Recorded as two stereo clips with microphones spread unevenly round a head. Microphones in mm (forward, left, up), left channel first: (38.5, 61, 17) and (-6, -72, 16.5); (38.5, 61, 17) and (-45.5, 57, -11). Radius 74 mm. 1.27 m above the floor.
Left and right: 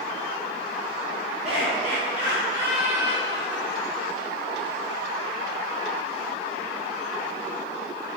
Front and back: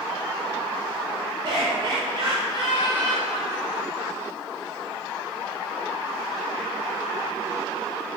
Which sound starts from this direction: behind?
Laughter, at 1.4 s.